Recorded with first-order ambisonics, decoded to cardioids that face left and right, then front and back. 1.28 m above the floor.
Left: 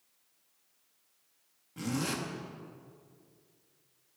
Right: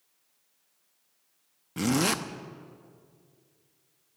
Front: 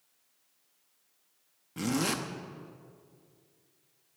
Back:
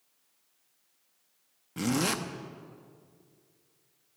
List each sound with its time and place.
1.8 s a zipper: 100° right, 0.7 m